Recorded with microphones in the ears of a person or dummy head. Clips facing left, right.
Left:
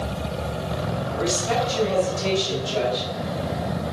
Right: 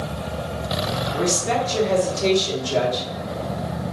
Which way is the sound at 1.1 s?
80° right.